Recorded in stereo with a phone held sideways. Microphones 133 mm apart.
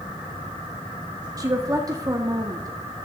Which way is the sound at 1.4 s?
30° right (ahead or behind).